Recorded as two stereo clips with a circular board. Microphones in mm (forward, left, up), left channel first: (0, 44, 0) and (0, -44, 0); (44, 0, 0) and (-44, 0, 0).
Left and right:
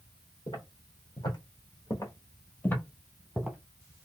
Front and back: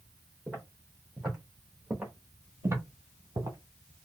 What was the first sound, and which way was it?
Footsteps, 90° left.